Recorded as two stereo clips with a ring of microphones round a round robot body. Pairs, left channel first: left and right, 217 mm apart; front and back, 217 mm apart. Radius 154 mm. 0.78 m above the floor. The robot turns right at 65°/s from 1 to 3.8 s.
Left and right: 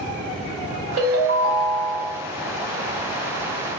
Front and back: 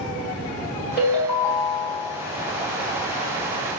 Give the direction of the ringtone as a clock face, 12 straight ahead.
3 o'clock.